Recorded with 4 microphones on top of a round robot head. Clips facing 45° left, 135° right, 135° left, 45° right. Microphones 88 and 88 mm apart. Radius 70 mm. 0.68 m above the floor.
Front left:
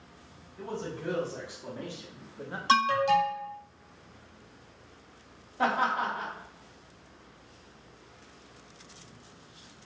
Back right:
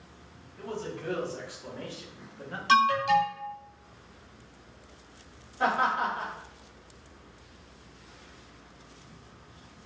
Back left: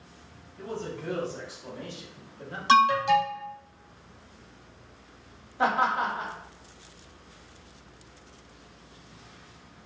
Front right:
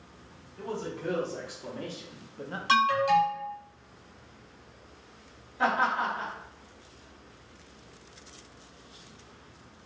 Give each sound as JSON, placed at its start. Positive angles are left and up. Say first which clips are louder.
{"t": 0.6, "sound": "a man speaking", "louder": "even, even", "azimuth_deg": -25, "distance_m": 2.0}
{"t": 2.7, "sound": "an alarm", "louder": "back right 1 dB, back left 3 dB", "azimuth_deg": 85, "distance_m": 1.1}
{"t": 5.6, "sound": "laughter", "louder": "back right 1 dB, back left 2 dB", "azimuth_deg": 75, "distance_m": 1.7}